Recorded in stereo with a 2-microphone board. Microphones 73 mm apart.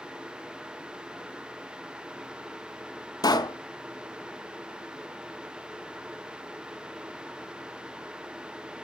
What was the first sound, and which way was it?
A pop, 70° left (ahead or behind).